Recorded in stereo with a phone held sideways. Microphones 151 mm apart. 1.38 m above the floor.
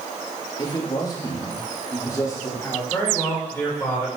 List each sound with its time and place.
0.6 s a man speaking: 35° left (ahead or behind), 2 m; by 2.8 s 20° left (ahead or behind), 4 m
2.9 s a man speaking: 15° left (ahead or behind), 6 m